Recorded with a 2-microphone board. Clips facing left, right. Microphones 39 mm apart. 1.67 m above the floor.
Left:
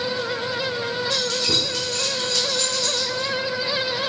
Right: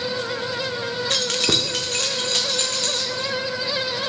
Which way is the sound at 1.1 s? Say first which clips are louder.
Right 4 dB; 60° right (ahead or behind).